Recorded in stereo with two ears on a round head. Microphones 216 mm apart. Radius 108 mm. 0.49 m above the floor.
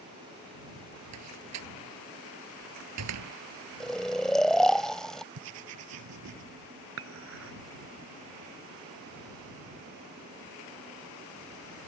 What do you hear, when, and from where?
1.1 s a door slam: 70° right (ahead or behind)
3.8 s snoring: 5° left (ahead or behind)
5.3 s writing: 65° right (ahead or behind)
7.0 s dishes clattering: 55° right (ahead or behind)